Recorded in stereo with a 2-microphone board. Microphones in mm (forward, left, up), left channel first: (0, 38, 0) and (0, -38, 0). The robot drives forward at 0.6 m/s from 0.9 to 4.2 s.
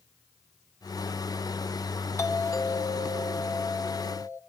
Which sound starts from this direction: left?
A doorbell, at 2.2 s.